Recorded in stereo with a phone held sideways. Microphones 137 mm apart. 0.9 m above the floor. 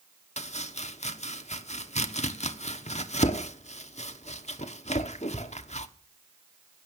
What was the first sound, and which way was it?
Chopping, 55° left (ahead or behind).